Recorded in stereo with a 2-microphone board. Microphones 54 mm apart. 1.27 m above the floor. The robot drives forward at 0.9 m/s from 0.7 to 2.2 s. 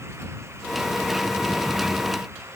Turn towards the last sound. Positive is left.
No sound to turn to.